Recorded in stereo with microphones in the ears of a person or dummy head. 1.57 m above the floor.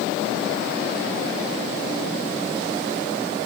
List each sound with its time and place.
Only background noise.